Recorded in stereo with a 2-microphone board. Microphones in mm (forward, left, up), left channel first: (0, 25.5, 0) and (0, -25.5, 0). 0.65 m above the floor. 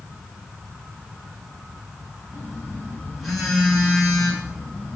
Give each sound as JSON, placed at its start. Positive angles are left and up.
{"t": 2.3, "sound": "a phone buzzing", "side_deg": 0, "distance_m": 2.0}